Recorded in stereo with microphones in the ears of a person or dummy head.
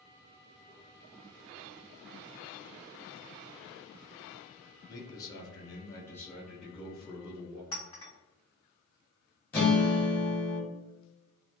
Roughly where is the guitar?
Centre.